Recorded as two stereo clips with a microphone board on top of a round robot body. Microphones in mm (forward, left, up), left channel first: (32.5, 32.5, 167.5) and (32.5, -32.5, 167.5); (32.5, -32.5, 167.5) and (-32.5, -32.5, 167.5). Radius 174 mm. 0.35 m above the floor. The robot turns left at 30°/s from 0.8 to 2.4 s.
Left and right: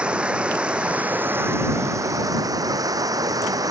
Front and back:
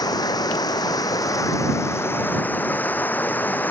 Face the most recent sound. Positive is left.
turn(degrees=-65)